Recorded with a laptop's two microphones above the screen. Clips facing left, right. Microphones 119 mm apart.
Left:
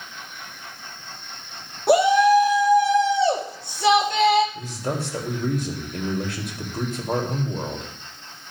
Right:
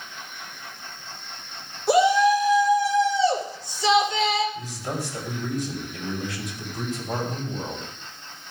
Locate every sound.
1.9 s a shout: 60° left (ahead or behind), 2.5 m
4.5 s a man speaking: 60° left (ahead or behind), 3.5 m